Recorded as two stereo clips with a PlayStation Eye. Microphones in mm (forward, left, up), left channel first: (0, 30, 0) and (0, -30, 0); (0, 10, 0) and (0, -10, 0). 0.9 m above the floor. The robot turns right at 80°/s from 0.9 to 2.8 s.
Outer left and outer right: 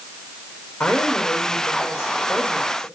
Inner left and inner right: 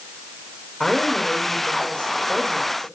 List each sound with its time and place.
0.8 s a woman speaking: 30° left, 3 m; by 2.9 s straight behind, 3 m